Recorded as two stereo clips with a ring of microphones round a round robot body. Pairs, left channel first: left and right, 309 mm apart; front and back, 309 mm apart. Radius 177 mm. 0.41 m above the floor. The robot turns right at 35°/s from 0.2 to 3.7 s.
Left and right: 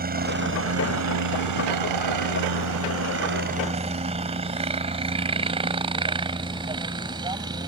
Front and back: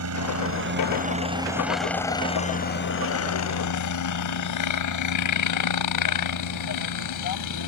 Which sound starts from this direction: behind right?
A helicopter, at 0.0 s.